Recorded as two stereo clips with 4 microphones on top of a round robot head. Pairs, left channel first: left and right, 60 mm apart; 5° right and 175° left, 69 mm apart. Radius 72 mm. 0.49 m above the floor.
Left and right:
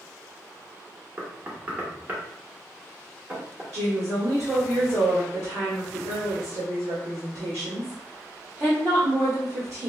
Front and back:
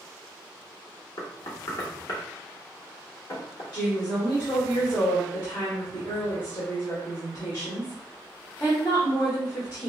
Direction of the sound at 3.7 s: 55° right.